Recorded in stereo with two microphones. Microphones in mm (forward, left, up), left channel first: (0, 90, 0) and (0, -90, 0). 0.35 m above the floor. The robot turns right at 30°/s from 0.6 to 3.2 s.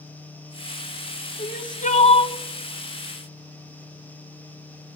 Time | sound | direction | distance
1.4 | crying | 55° left (ahead or behind) | 0.6 m